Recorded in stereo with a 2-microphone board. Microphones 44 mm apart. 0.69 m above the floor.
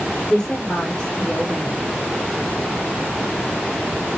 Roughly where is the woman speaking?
Centre.